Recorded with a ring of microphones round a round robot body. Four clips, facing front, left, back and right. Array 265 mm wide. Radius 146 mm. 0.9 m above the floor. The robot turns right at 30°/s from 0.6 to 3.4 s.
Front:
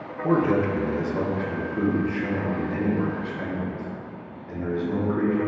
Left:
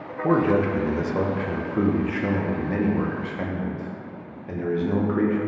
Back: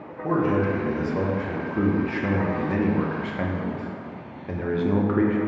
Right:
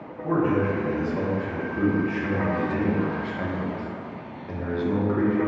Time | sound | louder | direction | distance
0.2 | a man speaking | left 2 dB, front 1 dB | 80° left | 0.6 m